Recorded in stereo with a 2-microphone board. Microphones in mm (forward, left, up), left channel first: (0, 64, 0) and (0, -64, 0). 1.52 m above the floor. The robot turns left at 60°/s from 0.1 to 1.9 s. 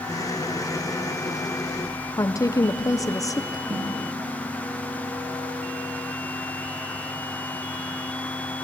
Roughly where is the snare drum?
Right.